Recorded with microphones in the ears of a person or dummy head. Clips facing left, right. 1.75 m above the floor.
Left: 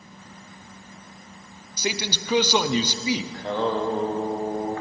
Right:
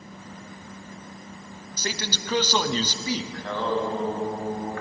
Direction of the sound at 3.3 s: 20° left (ahead or behind).